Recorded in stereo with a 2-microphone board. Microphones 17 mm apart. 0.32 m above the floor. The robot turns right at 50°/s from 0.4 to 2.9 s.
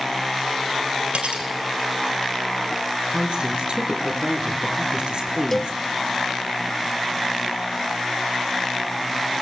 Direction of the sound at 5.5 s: 15° left (ahead or behind).